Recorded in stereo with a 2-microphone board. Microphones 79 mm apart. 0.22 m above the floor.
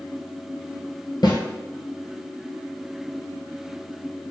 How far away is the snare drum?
About 0.9 m.